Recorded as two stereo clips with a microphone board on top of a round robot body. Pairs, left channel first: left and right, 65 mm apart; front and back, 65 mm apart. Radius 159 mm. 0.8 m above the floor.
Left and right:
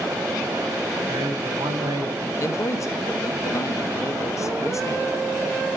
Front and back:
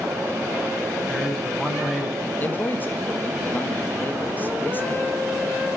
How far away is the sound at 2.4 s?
About 1.4 m.